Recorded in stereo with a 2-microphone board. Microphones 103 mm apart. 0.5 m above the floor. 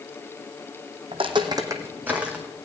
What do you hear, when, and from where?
1.1 s footsteps: 65° right (ahead or behind), 1.6 m; by 2.5 s 5° right (ahead or behind), 2.5 m